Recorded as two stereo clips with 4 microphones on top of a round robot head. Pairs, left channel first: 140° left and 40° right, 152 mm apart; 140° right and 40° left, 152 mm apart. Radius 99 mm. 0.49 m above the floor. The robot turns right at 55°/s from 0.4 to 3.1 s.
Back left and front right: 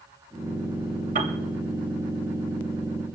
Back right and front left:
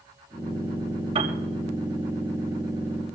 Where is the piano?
5° right, 2.5 m; by 1.4 s 5° left, 2.5 m.